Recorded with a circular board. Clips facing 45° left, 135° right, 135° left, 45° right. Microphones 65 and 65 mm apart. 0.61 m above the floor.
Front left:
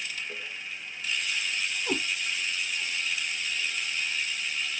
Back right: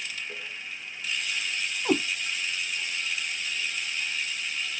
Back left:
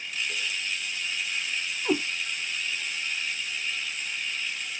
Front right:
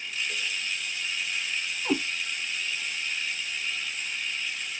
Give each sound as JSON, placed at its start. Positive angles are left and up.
{"t": 1.9, "sound": "a cat meowing", "azimuth_deg": -135, "distance_m": 3.0}